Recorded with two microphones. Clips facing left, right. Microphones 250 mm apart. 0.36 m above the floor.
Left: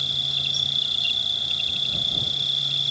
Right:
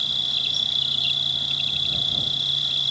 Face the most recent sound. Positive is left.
turn(degrees=-65)  # may be behind; listen again after turning